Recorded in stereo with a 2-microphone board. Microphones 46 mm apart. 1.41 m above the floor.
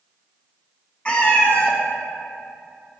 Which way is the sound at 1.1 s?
25° left (ahead or behind).